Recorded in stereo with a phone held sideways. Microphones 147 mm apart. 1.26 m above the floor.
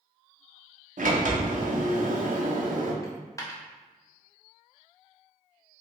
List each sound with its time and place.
1.0 s a sliding door: 60° right (ahead or behind), 0.6 m
3.0 s a dropped coin: 20° left (ahead or behind), 0.5 m